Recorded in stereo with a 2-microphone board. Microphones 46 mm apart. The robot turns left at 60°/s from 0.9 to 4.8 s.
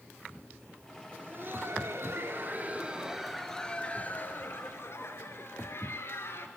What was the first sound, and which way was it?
Laughter, 45° right.